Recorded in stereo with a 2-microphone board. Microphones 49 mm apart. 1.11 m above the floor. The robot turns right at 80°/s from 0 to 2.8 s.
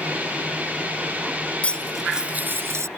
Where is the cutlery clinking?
155° left; by 2.9 s 115° right.